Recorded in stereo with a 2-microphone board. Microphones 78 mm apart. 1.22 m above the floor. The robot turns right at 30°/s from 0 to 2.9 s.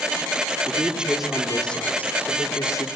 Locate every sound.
0.7 s a man speaking: 20° right, 3.5 m; by 2.9 s 45° left, 3.5 m